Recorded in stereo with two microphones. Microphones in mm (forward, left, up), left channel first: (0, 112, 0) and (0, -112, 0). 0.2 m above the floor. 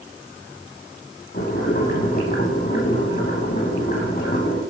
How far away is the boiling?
About 2.5 m.